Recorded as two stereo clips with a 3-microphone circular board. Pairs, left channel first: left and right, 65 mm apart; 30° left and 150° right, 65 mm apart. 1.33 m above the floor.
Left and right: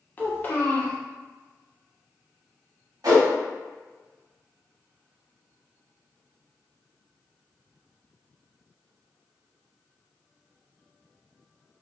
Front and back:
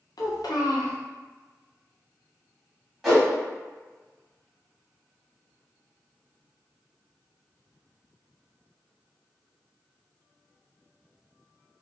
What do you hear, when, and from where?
0.2 s a child speaking: 30° left, 0.6 m
3.0 s a whoosh: 65° right, 1.2 m